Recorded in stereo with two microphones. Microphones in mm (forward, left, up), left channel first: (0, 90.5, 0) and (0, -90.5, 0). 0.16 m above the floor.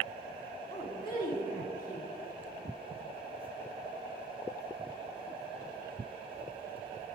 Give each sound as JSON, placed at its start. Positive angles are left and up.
{"t": 0.7, "sound": "a woman speaking", "side_deg": 25, "distance_m": 1.2}